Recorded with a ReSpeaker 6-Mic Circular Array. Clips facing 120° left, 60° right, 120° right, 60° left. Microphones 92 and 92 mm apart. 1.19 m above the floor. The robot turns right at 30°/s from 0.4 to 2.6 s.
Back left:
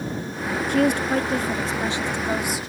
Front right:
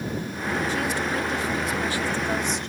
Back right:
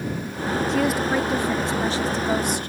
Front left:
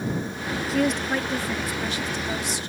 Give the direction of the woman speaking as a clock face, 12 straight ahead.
7 o'clock.